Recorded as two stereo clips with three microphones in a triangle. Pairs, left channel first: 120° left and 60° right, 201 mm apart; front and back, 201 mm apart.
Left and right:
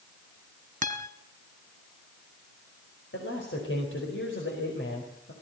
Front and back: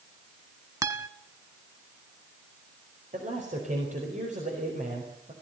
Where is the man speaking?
130° left, 4.5 m.